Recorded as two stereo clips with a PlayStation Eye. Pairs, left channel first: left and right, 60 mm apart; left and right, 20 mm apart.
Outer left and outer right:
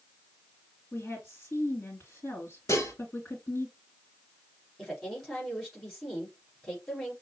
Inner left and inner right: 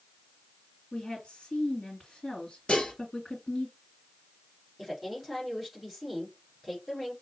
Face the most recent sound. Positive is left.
turn(degrees=0)  # may be behind; listen again after turning